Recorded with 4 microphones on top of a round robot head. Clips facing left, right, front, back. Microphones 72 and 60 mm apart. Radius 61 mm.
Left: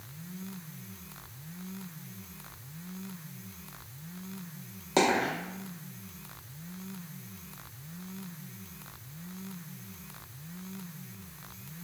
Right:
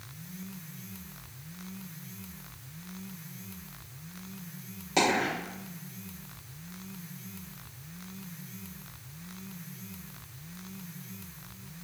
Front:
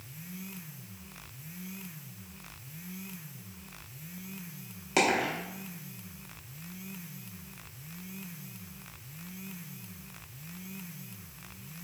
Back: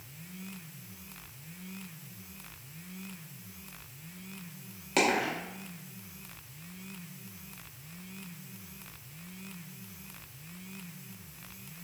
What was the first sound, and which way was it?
A dropped coin, 80° left.